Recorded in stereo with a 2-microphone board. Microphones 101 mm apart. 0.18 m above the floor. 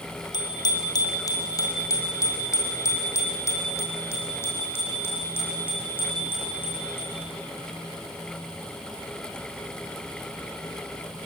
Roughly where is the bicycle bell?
Left.